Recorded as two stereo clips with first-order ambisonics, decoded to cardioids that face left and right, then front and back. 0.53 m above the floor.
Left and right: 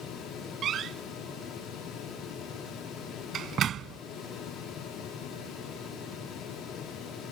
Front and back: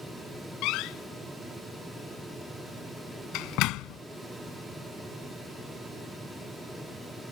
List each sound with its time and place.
0.6 s a door slam: 30° right